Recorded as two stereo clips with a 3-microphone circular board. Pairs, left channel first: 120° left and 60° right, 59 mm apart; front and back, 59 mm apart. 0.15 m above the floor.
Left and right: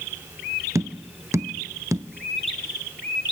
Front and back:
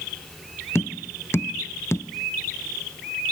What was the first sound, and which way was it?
Tapping, 40° right.